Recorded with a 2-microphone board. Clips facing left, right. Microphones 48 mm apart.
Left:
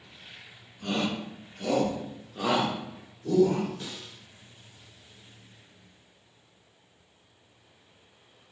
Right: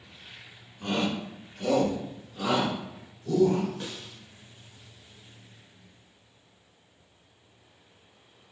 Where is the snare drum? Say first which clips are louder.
Right 2 dB; 20° right (ahead or behind), 0.6 m.